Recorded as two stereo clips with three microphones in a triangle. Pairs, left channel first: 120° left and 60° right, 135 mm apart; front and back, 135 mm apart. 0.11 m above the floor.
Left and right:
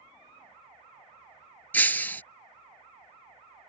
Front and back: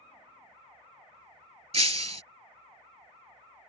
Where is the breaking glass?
165° right.